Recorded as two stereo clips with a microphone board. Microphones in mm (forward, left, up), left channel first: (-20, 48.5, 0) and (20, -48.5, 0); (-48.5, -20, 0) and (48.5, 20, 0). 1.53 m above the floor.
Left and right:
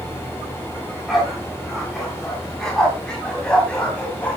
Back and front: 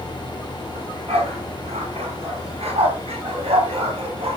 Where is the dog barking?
20° left, 7 m; by 4.4 s 35° left, 4.5 m.